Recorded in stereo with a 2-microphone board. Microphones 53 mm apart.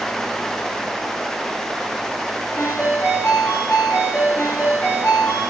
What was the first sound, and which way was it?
A ringtone, 50° left (ahead or behind).